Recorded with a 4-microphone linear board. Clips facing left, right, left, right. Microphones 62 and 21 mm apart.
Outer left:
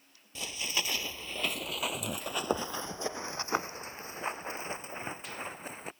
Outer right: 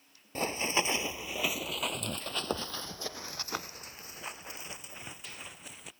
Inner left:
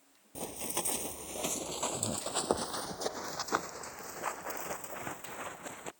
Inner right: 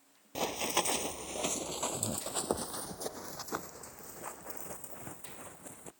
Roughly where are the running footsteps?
Right.